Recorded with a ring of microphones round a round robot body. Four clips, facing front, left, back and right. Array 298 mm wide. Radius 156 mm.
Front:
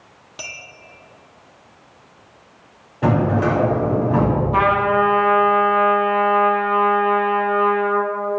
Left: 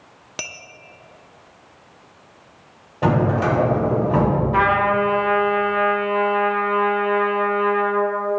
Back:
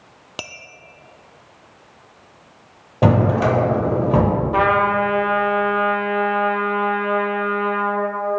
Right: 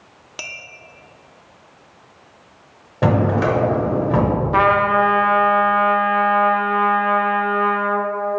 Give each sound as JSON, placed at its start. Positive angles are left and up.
{"t": 0.4, "sound": "a clink", "azimuth_deg": 155, "distance_m": 0.6}
{"t": 3.0, "sound": "a drawer", "azimuth_deg": -155, "distance_m": 1.0}
{"t": 4.5, "sound": "a trumpet", "azimuth_deg": -90, "distance_m": 0.9}